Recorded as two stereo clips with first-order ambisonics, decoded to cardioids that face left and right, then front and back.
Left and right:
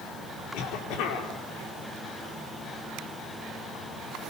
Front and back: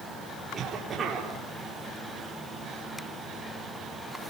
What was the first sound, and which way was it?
A cough, 115° left.